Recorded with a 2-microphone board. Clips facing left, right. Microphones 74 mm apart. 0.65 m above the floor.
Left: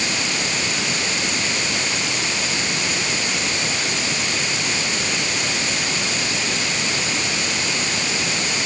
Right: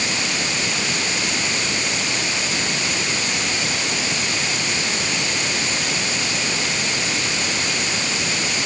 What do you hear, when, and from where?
Only background noise.